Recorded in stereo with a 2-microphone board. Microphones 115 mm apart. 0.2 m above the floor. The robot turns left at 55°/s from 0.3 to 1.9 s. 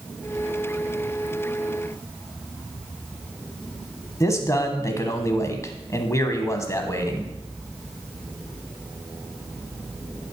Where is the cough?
I don't hear a cough.